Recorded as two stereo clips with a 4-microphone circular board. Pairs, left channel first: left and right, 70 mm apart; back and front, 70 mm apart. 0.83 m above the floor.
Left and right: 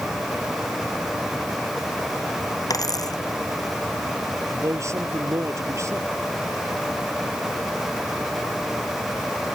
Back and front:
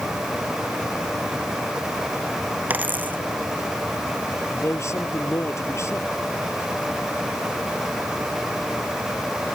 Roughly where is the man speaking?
Behind right.